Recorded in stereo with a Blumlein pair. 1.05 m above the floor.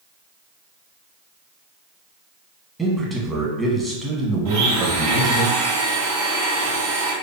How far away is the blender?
About 0.7 m.